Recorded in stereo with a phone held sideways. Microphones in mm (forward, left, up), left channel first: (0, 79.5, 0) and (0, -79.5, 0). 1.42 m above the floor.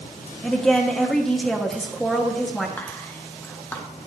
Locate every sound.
0.4 s a woman speaking: 5° left (ahead or behind), 1.4 m
2.8 s whispering: 15° left (ahead or behind), 1.3 m